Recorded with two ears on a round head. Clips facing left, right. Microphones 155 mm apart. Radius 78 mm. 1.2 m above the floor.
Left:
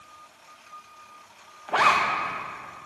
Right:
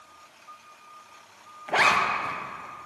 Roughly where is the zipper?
Centre.